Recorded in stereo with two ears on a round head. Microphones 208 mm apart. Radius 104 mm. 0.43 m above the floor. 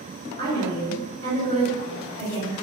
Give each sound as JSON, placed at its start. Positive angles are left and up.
{"t": 0.4, "sound": "a woman speaking", "side_deg": 10, "distance_m": 1.5}